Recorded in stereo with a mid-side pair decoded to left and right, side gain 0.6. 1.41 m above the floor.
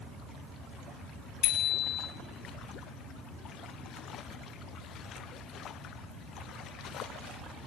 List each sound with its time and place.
1.4 s a bicycle bell: 70° left, 6.5 m